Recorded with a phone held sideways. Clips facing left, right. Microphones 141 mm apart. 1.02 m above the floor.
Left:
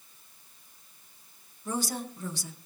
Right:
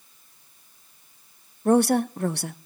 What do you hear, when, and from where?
1.6 s a woman speaking: 65° right (ahead or behind), 0.7 m